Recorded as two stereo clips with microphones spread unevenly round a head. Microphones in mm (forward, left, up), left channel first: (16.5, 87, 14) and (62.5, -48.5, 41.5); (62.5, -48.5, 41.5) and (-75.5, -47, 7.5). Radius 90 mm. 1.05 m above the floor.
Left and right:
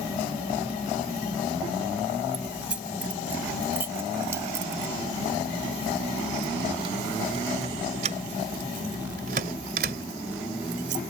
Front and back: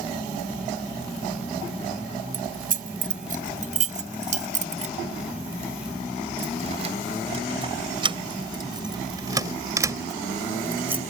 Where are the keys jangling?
155° right; by 11.0 s 100° right.